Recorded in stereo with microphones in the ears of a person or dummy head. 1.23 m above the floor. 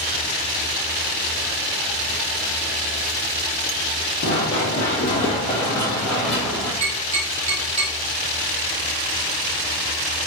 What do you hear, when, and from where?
4.2 s running footsteps: 50° left (ahead or behind), 1.9 m; by 6.7 s 10° right (ahead or behind), 1.4 m
6.8 s tapping: 40° right (ahead or behind), 1.8 m